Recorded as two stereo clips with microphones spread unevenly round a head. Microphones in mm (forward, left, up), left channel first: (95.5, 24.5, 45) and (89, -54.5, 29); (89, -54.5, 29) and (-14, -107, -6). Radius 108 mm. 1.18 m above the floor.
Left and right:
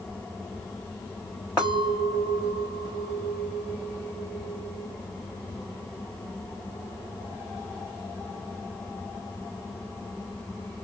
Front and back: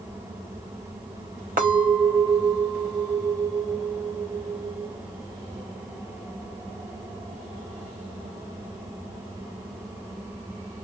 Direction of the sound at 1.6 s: 165° left.